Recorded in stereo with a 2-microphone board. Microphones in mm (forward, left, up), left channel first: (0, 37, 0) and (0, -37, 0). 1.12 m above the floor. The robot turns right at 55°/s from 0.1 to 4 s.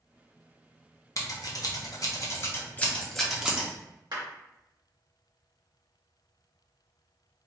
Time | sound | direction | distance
1.2 | scissors | 45° left (ahead or behind) | 0.6 m
4.1 | a clap | 75° right (ahead or behind) | 1.6 m